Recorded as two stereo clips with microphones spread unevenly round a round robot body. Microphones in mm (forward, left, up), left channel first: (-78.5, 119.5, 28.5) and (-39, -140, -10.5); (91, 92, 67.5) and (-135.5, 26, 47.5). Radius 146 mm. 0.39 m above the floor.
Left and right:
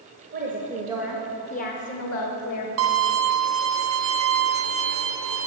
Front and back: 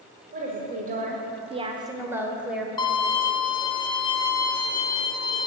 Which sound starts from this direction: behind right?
A woman speaking, at 0.3 s.